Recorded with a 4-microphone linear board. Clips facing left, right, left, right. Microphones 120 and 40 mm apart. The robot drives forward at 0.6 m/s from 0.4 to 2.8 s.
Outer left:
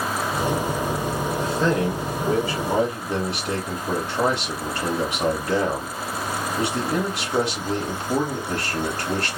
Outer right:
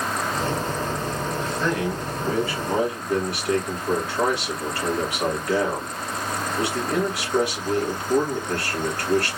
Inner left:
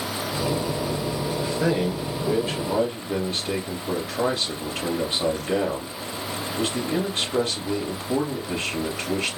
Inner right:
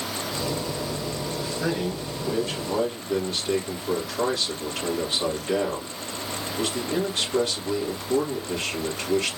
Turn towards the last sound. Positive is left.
turn(degrees=25)  # may be behind; listen again after turning